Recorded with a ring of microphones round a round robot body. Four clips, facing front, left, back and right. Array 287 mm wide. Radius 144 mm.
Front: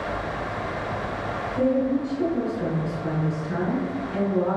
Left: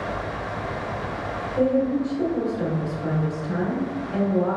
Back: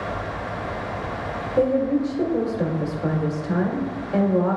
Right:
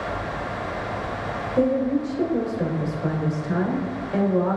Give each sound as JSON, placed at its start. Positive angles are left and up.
{"t": 1.6, "sound": "a woman speaking", "azimuth_deg": -145, "distance_m": 1.8}